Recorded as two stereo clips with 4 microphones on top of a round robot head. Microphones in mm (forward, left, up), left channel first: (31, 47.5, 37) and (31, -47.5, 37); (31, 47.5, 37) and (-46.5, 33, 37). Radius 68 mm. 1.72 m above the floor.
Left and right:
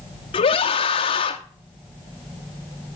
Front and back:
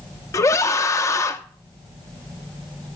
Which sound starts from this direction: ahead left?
A scream, at 0.3 s.